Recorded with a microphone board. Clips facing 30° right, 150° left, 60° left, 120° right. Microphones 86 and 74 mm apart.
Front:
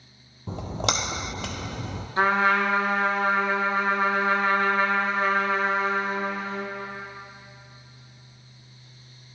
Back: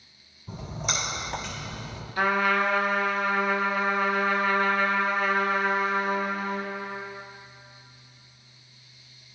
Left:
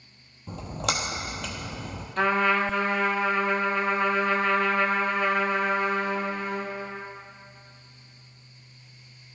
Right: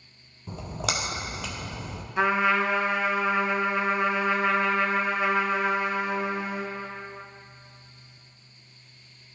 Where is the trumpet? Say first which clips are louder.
Front 2 dB, even; 50° right, 0.8 m.